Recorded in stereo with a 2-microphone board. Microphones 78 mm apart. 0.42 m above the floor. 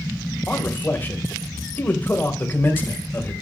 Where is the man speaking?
25° left (ahead or behind), 2 m.